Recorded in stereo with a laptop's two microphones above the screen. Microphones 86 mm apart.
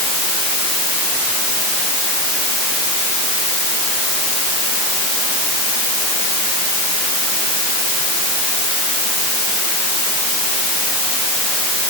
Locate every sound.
Only background noise.